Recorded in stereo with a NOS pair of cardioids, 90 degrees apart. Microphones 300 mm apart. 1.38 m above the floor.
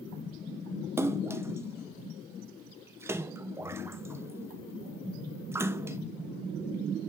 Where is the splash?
10° right, 0.9 m.